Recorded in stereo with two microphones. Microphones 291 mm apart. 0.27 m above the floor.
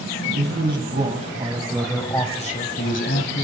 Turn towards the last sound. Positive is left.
turn(degrees=50)  # may be behind; listen again after turning